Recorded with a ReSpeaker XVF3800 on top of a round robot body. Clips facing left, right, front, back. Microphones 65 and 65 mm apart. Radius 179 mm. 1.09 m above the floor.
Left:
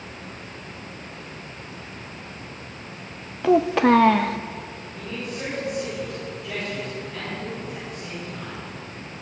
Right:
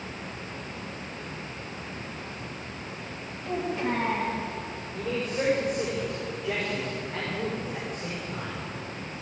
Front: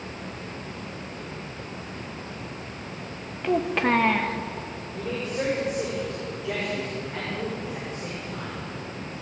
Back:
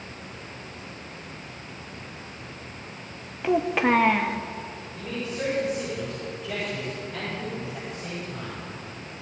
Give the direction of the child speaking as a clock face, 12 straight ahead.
9 o'clock.